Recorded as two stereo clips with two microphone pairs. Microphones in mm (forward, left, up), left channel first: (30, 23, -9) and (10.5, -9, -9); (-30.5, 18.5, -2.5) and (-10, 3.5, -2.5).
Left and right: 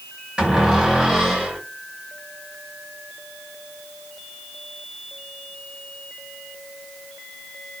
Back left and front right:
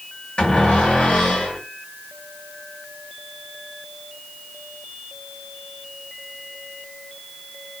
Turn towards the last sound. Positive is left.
turn(degrees=180)